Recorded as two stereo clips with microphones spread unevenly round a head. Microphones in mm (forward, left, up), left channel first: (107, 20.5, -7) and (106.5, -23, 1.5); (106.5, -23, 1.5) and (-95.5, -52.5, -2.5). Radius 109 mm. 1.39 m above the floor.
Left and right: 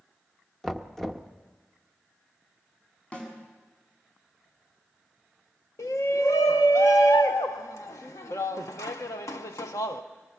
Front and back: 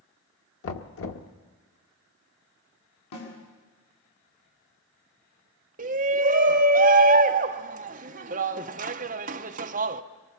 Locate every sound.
0.6 s knocking: straight ahead, 1.3 m
3.1 s a snare drum: 25° left, 7 m
5.8 s a shout: 130° left, 0.7 m